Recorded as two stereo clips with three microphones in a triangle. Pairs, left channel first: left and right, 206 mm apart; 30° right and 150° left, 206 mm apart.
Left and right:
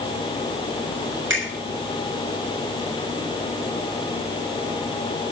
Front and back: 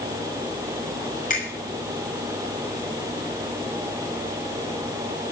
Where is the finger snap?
80° right, 7 m.